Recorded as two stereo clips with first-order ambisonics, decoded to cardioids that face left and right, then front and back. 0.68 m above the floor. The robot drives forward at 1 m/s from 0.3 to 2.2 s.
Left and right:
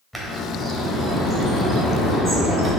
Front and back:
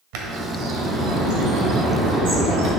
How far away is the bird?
About 1.2 m.